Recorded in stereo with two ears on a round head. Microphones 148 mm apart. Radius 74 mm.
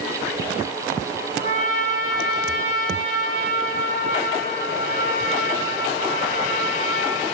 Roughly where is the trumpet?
Left.